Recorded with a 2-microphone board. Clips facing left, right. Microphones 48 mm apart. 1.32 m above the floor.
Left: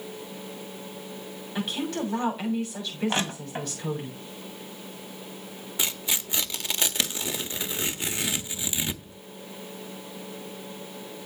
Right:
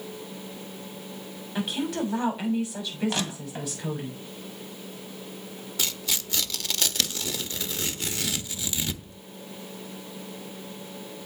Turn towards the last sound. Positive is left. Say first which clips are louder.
# left 1 dB
turn(degrees=20)  # may be behind; listen again after turning